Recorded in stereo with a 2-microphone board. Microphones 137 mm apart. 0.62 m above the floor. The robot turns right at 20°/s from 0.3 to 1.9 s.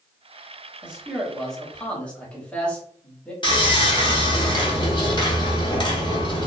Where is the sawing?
35° left (ahead or behind), 0.9 m.